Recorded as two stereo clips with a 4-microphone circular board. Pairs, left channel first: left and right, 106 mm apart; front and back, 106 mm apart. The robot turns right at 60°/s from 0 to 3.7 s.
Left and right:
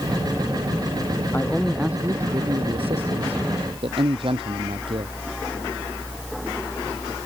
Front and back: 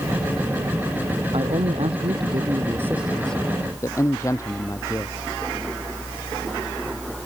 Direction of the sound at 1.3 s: 160° left.